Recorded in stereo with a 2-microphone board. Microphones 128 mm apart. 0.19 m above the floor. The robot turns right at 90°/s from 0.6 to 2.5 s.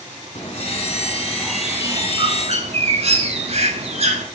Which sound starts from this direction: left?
A bird, at 0.3 s.